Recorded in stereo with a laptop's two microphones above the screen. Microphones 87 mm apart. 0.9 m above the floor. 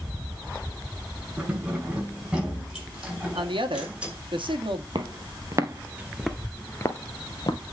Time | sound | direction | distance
1.4 | keys jangling | 15° right (ahead or behind) | 5.5 m
3.4 | a woman speaking | 70° right (ahead or behind) | 1.4 m
5.0 | footsteps | 55° right (ahead or behind) | 1.7 m